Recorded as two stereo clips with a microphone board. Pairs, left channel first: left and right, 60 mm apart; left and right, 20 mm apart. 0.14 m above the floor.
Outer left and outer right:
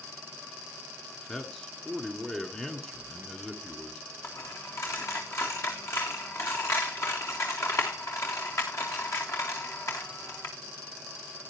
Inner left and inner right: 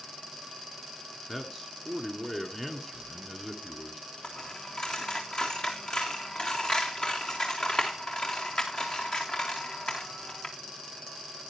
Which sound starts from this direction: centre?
A man speaking, at 1.3 s.